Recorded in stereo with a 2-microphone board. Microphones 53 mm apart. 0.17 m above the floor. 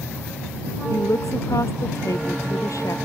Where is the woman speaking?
85° left; by 3.0 s 80° left.